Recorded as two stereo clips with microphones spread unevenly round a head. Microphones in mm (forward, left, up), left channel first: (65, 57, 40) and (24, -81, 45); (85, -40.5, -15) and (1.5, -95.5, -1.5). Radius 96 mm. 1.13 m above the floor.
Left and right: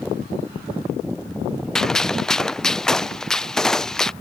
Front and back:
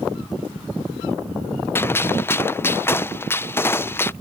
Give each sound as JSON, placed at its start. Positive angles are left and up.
{"t": 1.8, "sound": "a gunshot", "azimuth_deg": -10}